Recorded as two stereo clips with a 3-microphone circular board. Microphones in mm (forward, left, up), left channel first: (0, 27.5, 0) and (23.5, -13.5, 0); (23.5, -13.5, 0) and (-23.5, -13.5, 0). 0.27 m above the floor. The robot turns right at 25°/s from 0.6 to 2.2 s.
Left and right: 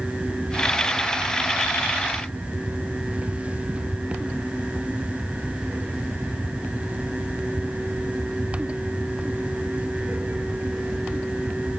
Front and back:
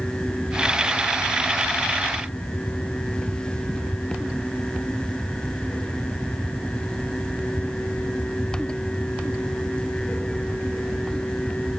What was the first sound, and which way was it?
Only background noise.